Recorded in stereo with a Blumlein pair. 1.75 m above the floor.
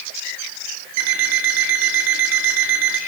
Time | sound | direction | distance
1.0 | an alarm clock | 50° right | 3 m